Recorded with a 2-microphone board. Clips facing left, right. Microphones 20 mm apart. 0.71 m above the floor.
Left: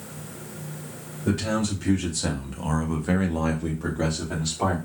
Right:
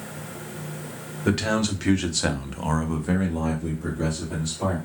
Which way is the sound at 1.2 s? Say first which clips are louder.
Right 2 dB; 70° right (ahead or behind).